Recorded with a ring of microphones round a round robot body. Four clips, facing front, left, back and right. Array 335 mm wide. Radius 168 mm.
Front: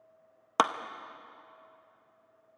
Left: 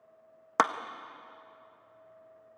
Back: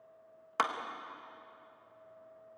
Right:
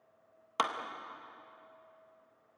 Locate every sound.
0.6 s a clap: 40° left, 0.8 m